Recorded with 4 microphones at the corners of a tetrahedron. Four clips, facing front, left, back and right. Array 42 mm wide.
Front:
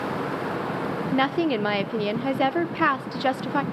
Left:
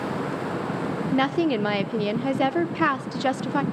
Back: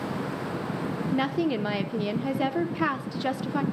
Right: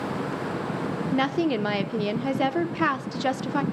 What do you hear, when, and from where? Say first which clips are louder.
1.1 s a woman speaking: left 2 dB, front 4 dB; 10° left, 0.8 m